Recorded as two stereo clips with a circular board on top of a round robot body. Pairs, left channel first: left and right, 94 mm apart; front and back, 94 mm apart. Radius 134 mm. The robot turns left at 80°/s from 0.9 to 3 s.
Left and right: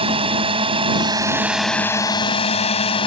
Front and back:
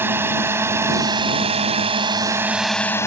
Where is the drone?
115° right; by 3.1 s 60° left.